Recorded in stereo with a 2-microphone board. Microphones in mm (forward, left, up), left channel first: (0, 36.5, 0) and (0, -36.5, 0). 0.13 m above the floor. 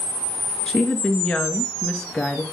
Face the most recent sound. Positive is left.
turn(degrees=10)  # may be behind; listen again after turning